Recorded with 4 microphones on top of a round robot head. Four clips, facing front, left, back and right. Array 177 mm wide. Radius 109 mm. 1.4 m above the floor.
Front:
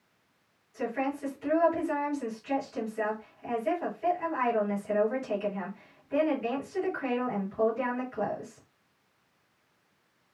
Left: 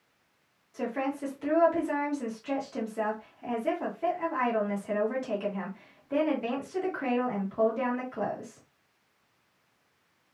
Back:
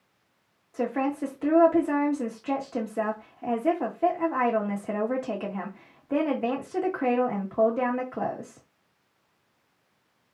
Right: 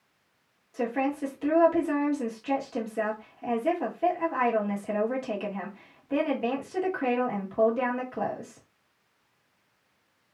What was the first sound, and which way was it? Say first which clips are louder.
A woman speaking: right 3 dB, back 4 dB; 165° right.